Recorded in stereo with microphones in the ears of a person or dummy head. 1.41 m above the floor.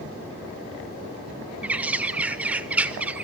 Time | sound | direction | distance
1.6 | a bird | 5° right (ahead or behind) | 0.5 m